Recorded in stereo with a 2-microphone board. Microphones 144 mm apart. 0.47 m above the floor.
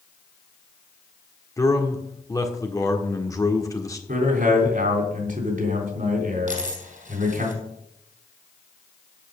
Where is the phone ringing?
No phone ringing in this recording.